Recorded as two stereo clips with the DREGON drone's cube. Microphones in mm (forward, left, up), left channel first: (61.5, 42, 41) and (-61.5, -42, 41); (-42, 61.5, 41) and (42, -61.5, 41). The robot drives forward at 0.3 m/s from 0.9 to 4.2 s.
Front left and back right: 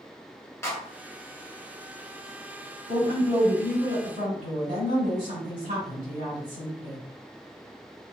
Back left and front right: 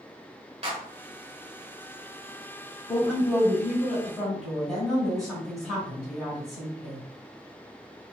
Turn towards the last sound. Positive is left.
turn(degrees=-145)